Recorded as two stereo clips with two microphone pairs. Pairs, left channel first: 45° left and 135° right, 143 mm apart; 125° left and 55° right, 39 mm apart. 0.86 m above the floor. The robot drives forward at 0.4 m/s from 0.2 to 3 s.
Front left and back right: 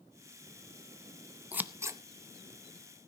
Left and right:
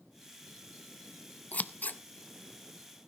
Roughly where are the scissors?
Behind left.